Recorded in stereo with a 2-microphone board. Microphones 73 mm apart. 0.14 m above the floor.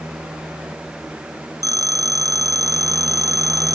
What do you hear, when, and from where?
1.6 s a phone ringing: 50° right (ahead or behind)